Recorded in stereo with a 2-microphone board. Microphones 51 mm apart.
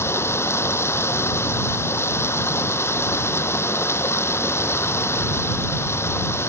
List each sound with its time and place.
0.0 s running water: 60° left (ahead or behind)